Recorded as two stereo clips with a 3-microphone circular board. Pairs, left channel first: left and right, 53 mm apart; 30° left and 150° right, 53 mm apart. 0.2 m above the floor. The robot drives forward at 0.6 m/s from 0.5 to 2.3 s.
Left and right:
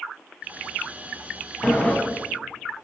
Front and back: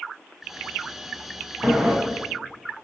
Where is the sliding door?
130° left, 0.8 m; by 2.0 s 145° left, 0.9 m.